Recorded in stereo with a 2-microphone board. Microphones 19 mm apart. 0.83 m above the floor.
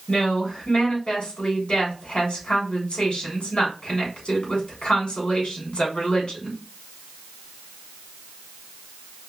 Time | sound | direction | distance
0.1 | a woman speaking | 85° left | 3 m